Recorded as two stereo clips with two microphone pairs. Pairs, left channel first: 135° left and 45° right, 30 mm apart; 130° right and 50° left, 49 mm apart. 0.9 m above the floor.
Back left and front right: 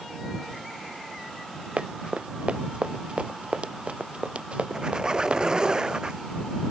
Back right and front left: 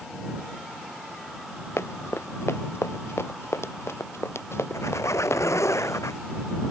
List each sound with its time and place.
1.8 s running footsteps: 100° right
4.7 s a squeak: 115° right